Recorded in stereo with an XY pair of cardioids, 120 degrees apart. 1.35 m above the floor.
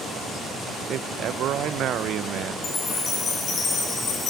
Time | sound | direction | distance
0.9 | a man speaking | 60° right | 0.9 m
2.6 | a chime | 40° left | 3 m